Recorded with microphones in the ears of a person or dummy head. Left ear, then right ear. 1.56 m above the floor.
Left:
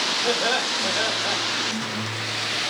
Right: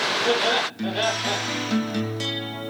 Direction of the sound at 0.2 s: 75° left (ahead or behind).